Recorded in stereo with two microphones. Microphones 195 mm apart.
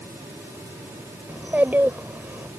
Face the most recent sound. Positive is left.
turn(degrees=-10)  # may be behind; listen again after turning